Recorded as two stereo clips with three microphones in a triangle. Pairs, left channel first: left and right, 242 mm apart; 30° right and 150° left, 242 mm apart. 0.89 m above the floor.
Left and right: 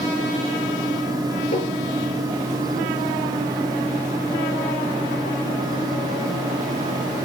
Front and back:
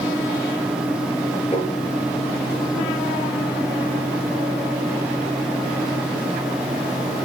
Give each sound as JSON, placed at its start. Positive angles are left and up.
{"t": 1.5, "sound": "tapping", "azimuth_deg": 35, "distance_m": 4.5}